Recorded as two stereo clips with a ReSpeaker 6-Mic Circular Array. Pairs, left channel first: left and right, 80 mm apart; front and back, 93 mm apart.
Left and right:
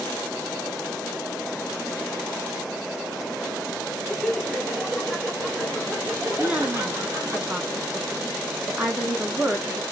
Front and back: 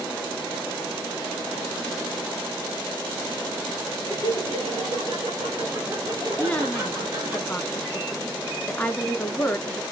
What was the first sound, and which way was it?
Laughter, straight behind.